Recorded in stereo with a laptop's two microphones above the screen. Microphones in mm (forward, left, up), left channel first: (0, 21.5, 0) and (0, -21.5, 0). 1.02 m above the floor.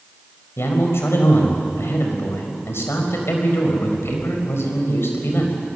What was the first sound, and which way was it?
A man speaking, 75° left (ahead or behind).